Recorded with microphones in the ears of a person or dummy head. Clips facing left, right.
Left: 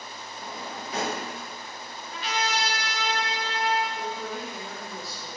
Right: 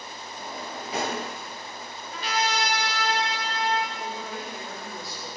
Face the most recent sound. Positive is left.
turn(degrees=5)  # may be behind; listen again after turning